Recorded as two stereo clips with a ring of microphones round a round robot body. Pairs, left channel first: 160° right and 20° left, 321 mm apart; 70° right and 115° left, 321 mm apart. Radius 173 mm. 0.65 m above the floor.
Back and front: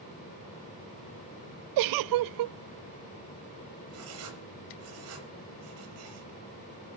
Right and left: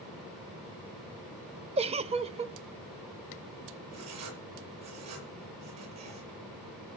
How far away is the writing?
About 6 m.